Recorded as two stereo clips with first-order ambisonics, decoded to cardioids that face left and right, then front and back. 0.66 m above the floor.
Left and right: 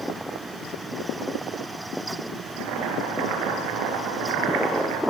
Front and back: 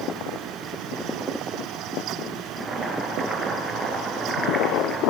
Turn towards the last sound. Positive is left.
turn(degrees=-100)